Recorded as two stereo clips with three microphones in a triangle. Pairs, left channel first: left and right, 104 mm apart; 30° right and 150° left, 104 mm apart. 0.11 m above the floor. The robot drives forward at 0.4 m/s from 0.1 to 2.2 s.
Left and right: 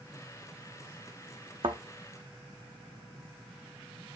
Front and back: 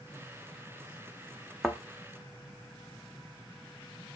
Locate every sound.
1.6 s a thud: 115° right, 0.7 m; by 1.8 s 120° right, 0.7 m